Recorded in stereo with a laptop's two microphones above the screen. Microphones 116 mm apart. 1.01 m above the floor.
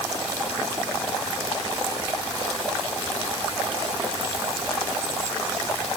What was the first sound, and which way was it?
Only background noise.